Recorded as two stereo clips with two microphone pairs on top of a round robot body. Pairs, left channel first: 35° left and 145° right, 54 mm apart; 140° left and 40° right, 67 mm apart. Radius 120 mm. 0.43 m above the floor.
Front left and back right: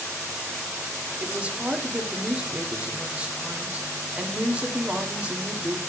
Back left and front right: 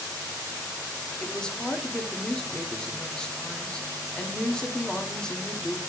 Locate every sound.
1.2 s a woman speaking: 145° right, 1.5 m